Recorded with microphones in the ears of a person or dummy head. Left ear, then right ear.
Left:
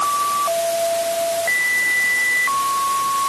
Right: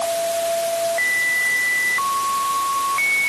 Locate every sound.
Only background noise.